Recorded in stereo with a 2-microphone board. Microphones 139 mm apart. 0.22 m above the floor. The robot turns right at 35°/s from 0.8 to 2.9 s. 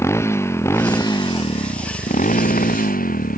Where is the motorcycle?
20° left; by 3.4 s 90° left.